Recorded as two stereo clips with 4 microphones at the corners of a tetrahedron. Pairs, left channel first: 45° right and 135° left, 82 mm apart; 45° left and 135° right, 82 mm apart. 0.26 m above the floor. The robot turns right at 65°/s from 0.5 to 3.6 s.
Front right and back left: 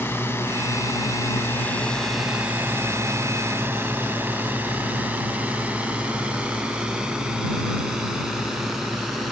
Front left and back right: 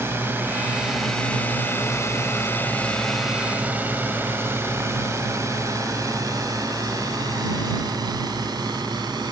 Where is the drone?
90° right; by 9.3 s 135° right.